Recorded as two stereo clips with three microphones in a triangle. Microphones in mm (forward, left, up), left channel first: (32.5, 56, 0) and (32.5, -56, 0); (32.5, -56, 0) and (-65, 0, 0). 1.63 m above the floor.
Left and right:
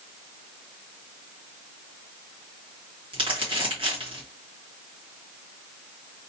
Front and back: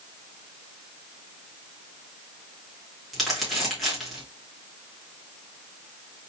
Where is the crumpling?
120° right, 1.9 m.